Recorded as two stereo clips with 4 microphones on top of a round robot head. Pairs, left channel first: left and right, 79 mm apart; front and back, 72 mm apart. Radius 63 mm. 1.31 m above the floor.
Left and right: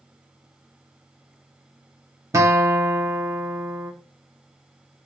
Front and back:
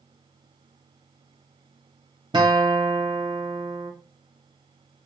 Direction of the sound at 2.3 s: 135° right.